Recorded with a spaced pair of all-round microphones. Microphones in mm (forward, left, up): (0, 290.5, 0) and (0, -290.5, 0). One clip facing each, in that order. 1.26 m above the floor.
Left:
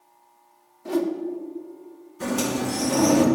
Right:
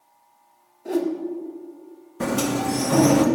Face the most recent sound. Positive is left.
turn(degrees=-75)  # may be behind; listen again after turning